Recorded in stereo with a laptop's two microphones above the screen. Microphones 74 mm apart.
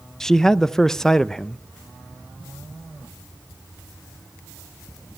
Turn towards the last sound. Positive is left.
turn(degrees=5)  # may be behind; listen again after turning